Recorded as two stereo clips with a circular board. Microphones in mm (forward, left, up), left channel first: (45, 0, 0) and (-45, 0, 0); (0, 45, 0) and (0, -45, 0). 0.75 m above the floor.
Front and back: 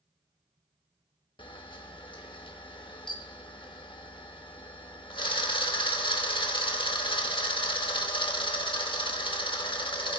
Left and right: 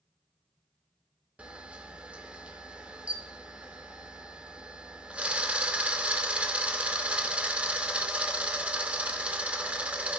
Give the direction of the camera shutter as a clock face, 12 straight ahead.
12 o'clock.